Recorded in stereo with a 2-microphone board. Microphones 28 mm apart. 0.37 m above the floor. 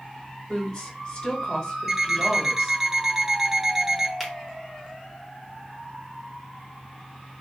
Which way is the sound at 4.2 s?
5° right (ahead or behind).